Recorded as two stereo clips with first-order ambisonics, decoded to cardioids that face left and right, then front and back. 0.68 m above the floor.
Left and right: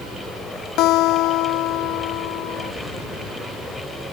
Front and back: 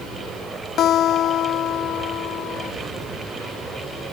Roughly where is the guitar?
Ahead left.